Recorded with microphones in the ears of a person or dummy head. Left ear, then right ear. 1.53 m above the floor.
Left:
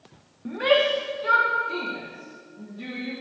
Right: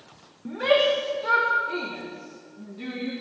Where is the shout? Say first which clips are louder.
Even; 10° left (ahead or behind), 0.9 m; by 3.1 s 30° right (ahead or behind), 2 m.